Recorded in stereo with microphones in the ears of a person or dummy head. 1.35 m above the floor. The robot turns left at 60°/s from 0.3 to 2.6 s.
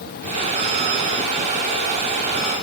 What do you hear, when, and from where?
Only background noise.